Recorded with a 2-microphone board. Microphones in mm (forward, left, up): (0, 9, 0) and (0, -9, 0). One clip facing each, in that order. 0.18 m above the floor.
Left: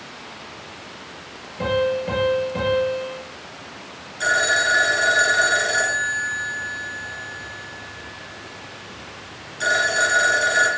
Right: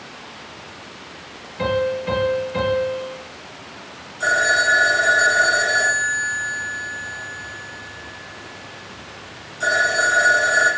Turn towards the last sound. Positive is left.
turn(degrees=40)  # may be behind; listen again after turning